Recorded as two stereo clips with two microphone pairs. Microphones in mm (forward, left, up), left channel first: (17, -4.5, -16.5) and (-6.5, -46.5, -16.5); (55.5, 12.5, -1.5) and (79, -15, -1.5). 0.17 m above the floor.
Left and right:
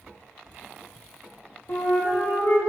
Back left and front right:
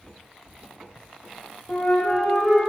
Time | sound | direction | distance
1.7 | a flute | 60° left | 3 m